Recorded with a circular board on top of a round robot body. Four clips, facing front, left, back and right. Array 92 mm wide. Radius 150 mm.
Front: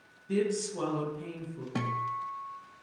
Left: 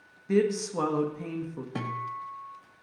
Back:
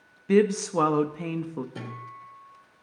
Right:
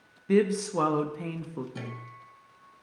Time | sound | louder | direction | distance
0.3 | a woman speaking | right 1 dB, back 9 dB | 165° right | 1.0 m
1.8 | a guitar | left 8 dB, front 7 dB | 40° left | 1.1 m